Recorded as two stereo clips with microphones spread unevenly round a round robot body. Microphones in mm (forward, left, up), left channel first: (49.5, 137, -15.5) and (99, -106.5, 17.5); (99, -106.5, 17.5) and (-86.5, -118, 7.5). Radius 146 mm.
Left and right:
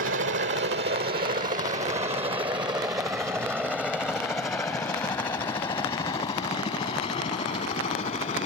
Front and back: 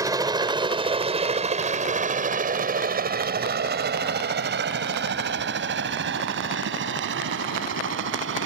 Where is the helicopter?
115° right; by 8.5 s 170° left.